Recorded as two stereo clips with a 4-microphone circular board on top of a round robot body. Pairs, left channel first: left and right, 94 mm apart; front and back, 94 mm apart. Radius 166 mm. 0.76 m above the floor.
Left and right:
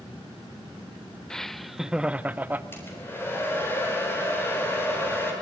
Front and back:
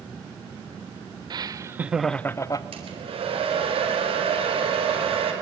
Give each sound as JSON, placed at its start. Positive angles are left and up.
{"t": 1.3, "sound": "laughter", "azimuth_deg": 170, "distance_m": 0.7}
{"t": 2.7, "sound": "a hair dryer", "azimuth_deg": 160, "distance_m": 4.0}